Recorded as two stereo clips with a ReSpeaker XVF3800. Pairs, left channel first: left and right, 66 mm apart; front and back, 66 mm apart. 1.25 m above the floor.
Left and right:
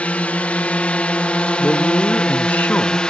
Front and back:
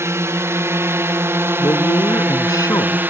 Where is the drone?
150° left; by 3.1 s 155° left.